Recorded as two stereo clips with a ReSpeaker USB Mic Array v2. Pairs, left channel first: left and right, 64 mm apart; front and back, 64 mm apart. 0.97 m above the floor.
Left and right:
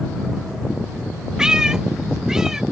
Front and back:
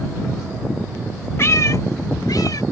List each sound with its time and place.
1.4 s a cat meowing: 15° right; by 2.6 s 10° right